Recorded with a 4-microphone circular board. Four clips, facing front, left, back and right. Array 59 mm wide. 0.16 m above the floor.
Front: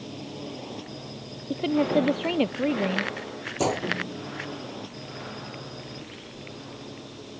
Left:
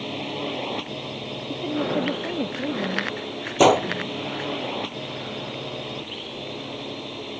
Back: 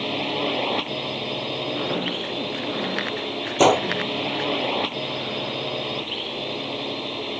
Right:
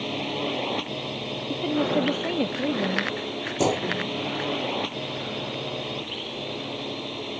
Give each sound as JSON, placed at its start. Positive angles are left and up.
{"t": 0.0, "sound": "a drone", "azimuth_deg": -175}
{"t": 1.5, "sound": "a woman speaking", "azimuth_deg": -10}
{"t": 3.6, "sound": "a gunshot", "azimuth_deg": 130}